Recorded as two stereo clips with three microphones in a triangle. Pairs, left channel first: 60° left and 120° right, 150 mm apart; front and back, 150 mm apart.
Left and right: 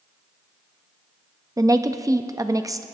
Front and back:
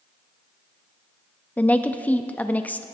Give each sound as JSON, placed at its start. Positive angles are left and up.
{"t": 1.6, "sound": "a woman speaking", "azimuth_deg": -70, "distance_m": 0.5}